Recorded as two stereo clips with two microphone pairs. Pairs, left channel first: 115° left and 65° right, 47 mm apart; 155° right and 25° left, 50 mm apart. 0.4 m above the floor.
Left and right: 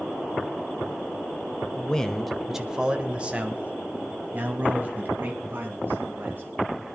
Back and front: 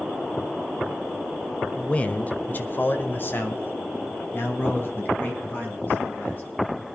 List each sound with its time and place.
1.8 s a man speaking: 160° left, 1.0 m; by 6.4 s 105° right, 4 m